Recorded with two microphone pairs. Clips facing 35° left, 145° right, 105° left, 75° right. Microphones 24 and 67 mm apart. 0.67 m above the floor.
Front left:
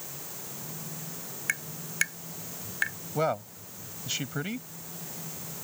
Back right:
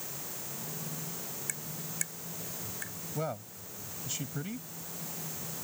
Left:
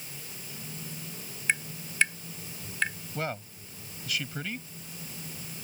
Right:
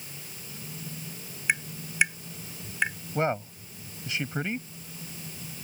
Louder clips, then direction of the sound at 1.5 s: Front left 13 dB, right 2 dB; straight ahead.